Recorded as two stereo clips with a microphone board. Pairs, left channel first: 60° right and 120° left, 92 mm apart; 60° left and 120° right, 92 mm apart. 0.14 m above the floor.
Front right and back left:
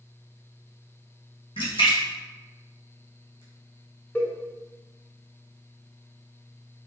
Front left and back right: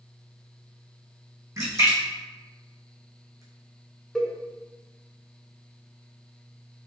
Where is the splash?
70° right, 1.6 m.